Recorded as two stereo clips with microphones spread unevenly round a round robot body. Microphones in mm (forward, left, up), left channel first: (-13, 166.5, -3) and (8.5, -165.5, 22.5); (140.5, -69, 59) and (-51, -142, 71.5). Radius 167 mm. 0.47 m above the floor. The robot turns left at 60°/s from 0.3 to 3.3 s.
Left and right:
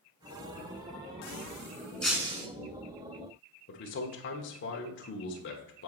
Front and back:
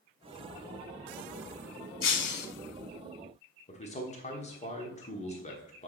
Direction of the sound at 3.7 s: 60° left.